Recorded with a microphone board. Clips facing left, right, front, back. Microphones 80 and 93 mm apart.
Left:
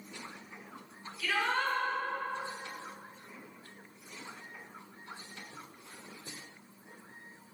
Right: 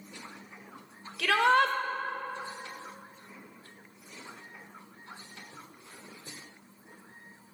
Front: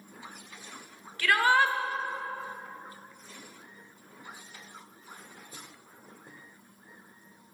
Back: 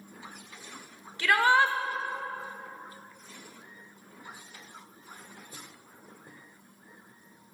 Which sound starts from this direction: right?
A shout, at 1.2 s.